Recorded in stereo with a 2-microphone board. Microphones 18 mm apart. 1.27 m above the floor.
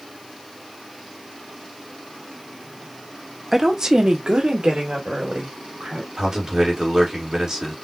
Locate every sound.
3.5 s a woman speaking: 20° right (ahead or behind), 0.7 m; by 6.1 s 80° right, 2.5 m
6.2 s a man speaking: 40° right (ahead or behind), 2.0 m